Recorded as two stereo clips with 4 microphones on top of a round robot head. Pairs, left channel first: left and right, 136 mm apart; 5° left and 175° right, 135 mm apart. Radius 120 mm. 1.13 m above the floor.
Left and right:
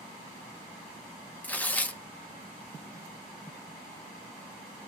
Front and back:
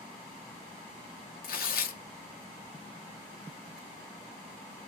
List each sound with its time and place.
1.4 s tearing paper: 10° left, 0.8 m